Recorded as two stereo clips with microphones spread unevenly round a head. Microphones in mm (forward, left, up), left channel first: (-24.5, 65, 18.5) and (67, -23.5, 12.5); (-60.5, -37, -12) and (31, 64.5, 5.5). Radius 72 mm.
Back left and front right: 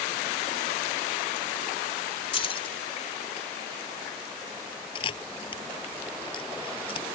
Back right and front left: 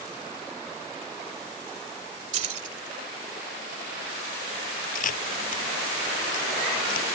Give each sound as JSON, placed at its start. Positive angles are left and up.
{"t": 2.3, "sound": "keys jangling", "azimuth_deg": 90}
{"t": 5.0, "sound": "a camera shutter", "azimuth_deg": -165}